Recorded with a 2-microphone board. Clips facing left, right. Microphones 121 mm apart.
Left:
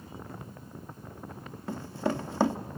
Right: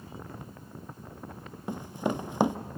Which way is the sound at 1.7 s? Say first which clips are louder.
Even; 15° right (ahead or behind).